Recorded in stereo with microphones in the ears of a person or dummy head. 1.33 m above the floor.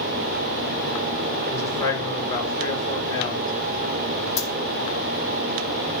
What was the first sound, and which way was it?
A man speaking, 15° left (ahead or behind).